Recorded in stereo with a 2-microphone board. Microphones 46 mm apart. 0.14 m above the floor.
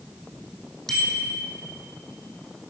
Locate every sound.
0.9 s a bicycle bell: 15° left (ahead or behind), 4 m